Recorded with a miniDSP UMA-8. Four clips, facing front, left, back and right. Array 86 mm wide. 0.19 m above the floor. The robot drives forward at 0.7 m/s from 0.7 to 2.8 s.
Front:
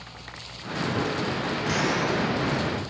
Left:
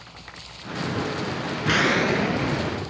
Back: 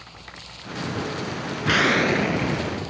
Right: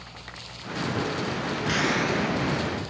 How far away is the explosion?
About 0.5 m.